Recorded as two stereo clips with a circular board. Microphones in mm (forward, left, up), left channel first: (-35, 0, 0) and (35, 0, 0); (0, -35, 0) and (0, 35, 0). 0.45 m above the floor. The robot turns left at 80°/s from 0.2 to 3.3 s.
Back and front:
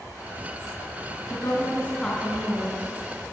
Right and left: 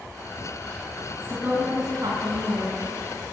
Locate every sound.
1.3 s a woman speaking: 160° left, 4.5 m; by 3.0 s 30° left, 4.5 m